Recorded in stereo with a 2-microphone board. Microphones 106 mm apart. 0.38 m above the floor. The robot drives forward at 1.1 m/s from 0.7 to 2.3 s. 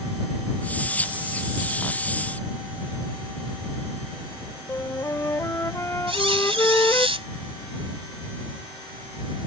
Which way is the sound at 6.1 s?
65° right (ahead or behind).